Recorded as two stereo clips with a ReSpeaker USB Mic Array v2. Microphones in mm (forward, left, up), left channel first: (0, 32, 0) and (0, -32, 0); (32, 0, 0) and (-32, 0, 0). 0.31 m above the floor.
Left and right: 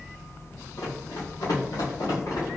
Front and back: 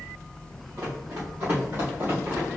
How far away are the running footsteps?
About 1.7 m.